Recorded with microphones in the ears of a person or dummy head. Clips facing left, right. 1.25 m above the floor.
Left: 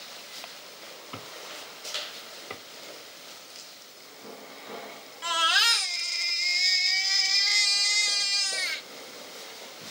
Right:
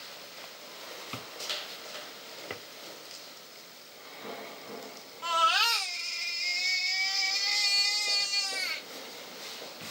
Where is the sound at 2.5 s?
10° right (ahead or behind), 0.6 m.